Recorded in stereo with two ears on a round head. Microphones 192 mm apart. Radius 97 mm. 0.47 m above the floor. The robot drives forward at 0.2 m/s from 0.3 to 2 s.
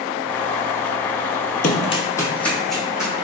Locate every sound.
1.6 s running footsteps: 40° left (ahead or behind), 0.6 m; by 3.1 s 5° right (ahead or behind), 1.7 m